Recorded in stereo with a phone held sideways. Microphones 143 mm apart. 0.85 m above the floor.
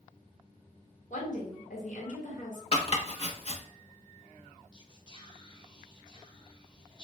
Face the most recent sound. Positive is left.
turn(degrees=35)  # may be behind; listen again after turning